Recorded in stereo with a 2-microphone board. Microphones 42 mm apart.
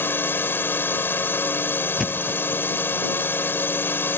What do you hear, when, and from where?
0.0 s a drone: 70° left (ahead or behind)
2.0 s a thud: 5° right (ahead or behind)